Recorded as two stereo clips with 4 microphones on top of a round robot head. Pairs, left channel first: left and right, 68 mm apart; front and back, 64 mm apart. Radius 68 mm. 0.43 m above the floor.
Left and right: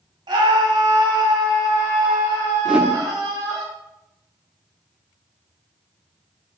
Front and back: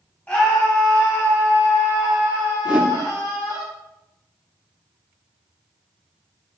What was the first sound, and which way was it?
A scream, 75° right.